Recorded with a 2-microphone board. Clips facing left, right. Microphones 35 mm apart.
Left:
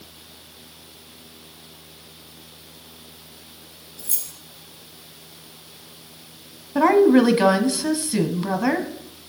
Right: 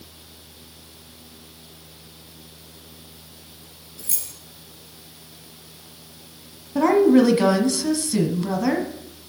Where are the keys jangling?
65° right (ahead or behind), 2.5 m.